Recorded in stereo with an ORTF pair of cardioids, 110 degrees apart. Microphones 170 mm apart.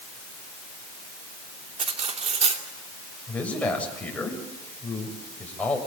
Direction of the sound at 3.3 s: 10° left.